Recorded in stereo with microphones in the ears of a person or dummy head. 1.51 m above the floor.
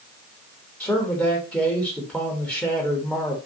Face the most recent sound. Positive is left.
turn(degrees=5)  # may be behind; listen again after turning